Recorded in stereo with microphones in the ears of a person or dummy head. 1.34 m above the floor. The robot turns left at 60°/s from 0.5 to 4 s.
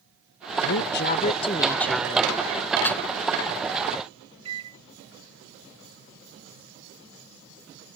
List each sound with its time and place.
0.6 s a woman speaking: 80° left; by 2.4 s 25° right
2.9 s a snare drum: 15° left (ahead or behind); by 3.0 s centre (ahead or behind)
4.5 s a microwave: 25° right (ahead or behind)